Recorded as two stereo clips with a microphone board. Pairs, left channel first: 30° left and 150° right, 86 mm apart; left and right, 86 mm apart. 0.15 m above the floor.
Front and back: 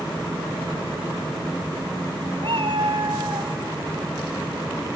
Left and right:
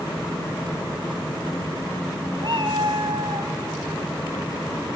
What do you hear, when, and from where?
2.4 s a cat meowing: 125° right, 2.0 m; by 3.5 s 110° right, 2 m